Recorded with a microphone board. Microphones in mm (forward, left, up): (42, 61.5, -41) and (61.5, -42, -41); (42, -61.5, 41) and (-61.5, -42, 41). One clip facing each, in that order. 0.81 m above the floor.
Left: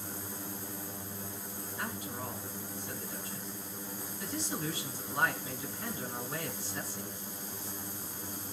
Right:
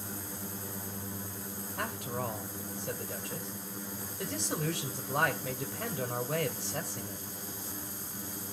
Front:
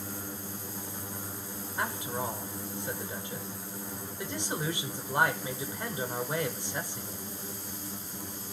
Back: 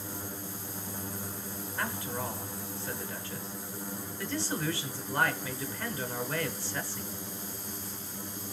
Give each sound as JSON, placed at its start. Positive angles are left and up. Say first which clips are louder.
{"t": 1.8, "sound": "a man speaking", "louder": "right 4 dB, front 2 dB", "azimuth_deg": -80, "distance_m": 3.0}